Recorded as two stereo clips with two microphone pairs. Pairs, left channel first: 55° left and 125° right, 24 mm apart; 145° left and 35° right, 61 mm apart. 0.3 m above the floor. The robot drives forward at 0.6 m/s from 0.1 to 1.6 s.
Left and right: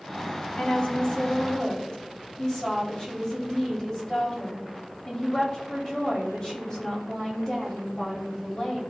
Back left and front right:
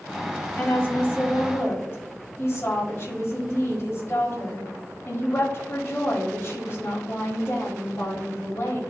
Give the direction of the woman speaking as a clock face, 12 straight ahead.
9 o'clock.